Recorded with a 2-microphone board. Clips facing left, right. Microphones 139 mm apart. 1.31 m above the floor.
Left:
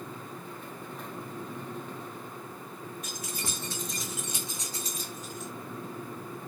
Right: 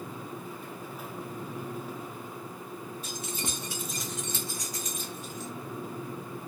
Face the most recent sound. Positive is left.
turn(degrees=50)  # may be behind; listen again after turning